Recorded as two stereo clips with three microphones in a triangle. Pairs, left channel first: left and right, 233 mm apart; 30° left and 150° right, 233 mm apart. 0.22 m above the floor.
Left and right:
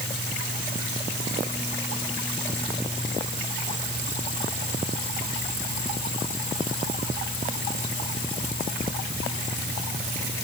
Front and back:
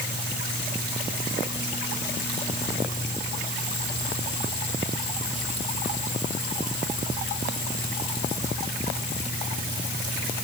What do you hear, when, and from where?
Only background noise.